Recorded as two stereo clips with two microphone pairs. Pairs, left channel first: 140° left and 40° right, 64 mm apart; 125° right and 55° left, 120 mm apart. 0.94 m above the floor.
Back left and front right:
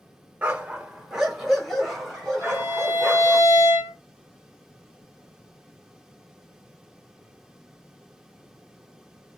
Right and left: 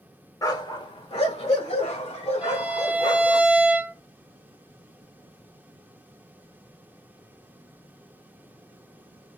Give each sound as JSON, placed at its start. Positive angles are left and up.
{"t": 0.4, "sound": "a dog barking", "azimuth_deg": -90, "distance_m": 0.7}
{"t": 2.4, "sound": "a violin", "azimuth_deg": 140, "distance_m": 1.2}